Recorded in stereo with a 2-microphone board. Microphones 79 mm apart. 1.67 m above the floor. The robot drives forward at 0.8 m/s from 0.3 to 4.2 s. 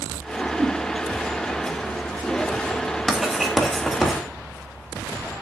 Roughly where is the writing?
Centre.